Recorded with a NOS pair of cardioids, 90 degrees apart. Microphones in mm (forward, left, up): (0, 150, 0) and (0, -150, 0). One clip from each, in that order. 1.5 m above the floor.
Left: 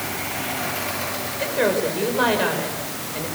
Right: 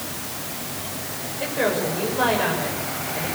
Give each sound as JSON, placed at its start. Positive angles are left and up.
{"t": 1.4, "sound": "a woman speaking", "azimuth_deg": 30, "distance_m": 7.0}